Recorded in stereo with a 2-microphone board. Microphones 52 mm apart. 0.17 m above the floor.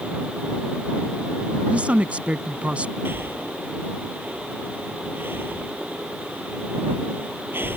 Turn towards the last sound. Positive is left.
turn(degrees=-50)  # may be behind; listen again after turning